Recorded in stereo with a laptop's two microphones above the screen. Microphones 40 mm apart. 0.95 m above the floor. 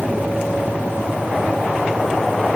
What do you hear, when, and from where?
0.0 s a fan: 40° right (ahead or behind), 4.5 m